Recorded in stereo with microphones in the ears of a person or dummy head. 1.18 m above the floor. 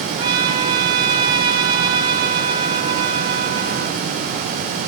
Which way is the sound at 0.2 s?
25° right (ahead or behind).